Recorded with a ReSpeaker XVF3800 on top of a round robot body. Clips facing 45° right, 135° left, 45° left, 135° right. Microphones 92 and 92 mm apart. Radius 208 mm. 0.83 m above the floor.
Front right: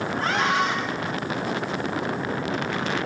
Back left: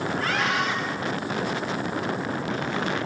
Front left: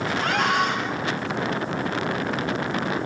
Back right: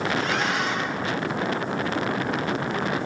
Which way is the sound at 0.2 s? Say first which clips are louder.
Front right 4 dB, front left 3 dB; 15° left.